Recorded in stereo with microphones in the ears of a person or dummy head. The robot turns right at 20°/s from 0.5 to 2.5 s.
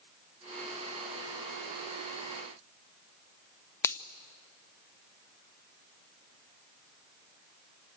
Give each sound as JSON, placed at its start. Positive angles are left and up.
{"t": 3.8, "sound": "a finger snap", "side_deg": 20, "distance_m": 0.6}